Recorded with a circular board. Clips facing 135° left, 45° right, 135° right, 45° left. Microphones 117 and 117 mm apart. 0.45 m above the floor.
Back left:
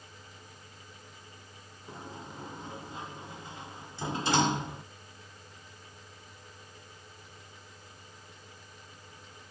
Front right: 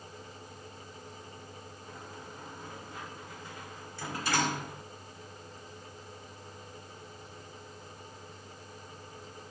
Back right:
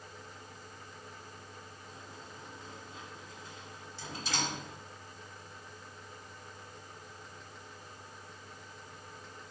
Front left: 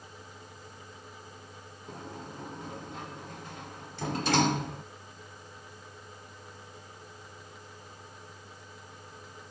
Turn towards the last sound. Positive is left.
turn(degrees=70)